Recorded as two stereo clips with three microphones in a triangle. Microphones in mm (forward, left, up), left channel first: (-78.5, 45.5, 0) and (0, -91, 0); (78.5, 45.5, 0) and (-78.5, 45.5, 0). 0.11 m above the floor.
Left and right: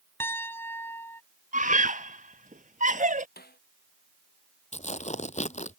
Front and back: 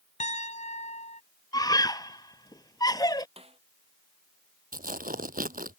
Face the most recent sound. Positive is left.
turn(degrees=160)